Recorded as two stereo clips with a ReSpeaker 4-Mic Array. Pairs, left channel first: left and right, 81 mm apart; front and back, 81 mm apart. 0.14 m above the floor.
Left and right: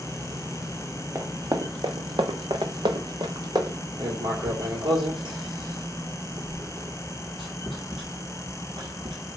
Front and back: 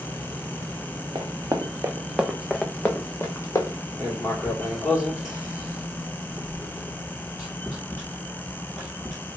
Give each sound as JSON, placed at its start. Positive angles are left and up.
{"t": 1.1, "sound": "running footsteps", "azimuth_deg": -140, "distance_m": 0.8}
{"t": 4.0, "sound": "writing", "azimuth_deg": -90, "distance_m": 1.6}